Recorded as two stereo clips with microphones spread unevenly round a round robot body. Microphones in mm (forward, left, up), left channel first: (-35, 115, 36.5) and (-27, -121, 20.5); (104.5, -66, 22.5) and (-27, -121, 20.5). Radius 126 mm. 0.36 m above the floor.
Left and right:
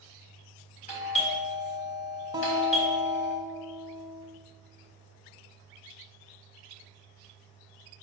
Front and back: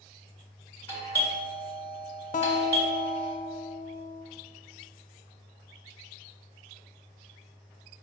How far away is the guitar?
About 0.5 m.